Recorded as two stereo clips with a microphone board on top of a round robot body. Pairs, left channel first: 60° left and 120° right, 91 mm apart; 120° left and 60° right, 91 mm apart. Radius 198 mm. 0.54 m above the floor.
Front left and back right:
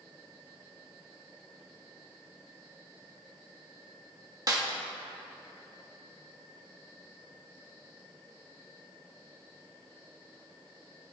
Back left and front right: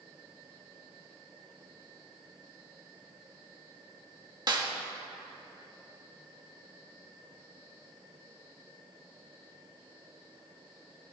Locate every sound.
4.5 s a snare drum: 85° right, 1.7 m